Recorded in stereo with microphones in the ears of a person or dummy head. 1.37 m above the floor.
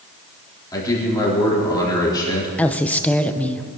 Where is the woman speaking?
10° left (ahead or behind), 0.7 m.